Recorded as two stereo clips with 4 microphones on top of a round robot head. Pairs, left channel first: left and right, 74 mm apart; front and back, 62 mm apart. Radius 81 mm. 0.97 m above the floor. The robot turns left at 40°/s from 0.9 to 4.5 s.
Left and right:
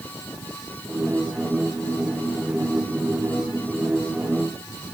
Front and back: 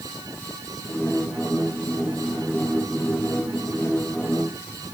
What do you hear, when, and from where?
Only background noise.